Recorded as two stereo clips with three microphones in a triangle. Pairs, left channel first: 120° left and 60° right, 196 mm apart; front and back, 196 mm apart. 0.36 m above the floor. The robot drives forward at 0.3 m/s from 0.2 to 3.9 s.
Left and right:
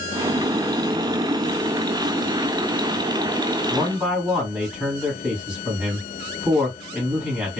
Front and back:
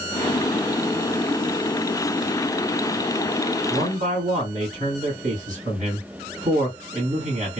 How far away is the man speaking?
About 2 m.